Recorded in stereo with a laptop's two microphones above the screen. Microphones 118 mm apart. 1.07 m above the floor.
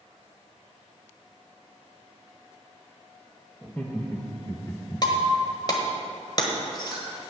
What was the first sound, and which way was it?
Laughter, 10° left (ahead or behind).